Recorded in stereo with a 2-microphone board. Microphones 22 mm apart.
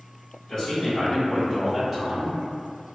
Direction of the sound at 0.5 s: 35° left (ahead or behind).